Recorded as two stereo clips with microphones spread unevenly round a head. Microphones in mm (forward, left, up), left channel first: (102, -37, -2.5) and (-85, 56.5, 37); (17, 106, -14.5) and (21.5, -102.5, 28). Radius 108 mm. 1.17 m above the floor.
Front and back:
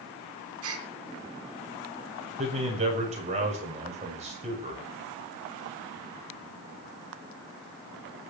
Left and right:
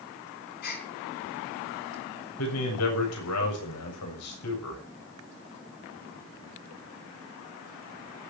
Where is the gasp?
140° left, 3.5 m.